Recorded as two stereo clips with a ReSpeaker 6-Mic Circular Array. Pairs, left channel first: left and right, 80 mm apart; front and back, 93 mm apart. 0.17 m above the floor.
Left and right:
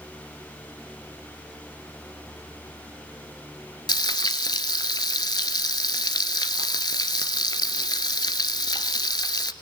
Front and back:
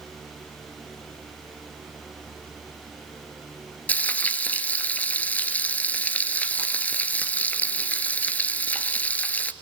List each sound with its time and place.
3.9 s frying: 70° left, 0.9 m